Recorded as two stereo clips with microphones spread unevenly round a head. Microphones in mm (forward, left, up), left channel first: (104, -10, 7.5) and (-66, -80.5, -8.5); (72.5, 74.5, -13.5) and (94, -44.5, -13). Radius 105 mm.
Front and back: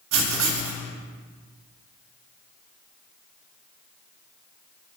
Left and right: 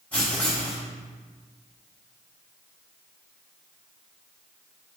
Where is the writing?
175° right, 0.8 m.